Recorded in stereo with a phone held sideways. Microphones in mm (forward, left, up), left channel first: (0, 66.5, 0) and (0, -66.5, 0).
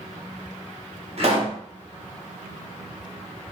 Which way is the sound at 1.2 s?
50° right (ahead or behind).